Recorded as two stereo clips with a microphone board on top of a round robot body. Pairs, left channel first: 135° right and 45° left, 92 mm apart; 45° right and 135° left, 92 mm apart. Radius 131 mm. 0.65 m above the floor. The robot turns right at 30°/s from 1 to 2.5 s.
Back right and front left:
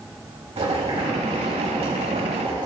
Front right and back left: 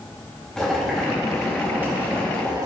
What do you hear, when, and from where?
0.6 s boiling: 40° left, 4.5 m; by 2.7 s 85° left, 4.5 m